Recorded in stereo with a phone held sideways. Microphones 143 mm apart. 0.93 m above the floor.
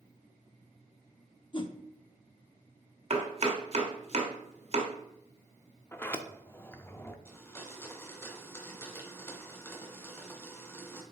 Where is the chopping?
45° right (ahead or behind), 1.2 m.